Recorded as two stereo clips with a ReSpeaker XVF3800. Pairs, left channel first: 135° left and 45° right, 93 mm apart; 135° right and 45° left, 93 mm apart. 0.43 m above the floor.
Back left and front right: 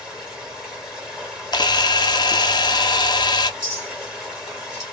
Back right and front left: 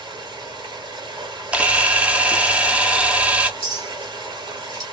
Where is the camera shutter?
120° left, 0.5 m.